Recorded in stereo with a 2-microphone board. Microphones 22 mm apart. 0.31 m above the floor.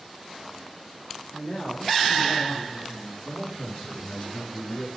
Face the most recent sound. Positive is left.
turn(degrees=55)  # may be behind; listen again after turning